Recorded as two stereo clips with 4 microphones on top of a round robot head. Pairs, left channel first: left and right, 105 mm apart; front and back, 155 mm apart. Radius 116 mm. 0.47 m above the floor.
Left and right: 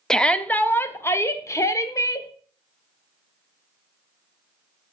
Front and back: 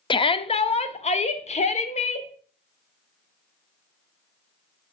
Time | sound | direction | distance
0.1 | a shout | 10° left | 0.8 m